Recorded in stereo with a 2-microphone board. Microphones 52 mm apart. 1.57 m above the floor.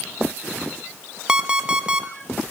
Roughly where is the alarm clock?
Centre.